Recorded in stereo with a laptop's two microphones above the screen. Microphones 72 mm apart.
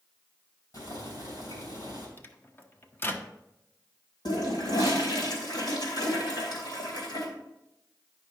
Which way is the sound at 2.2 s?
30° left (ahead or behind).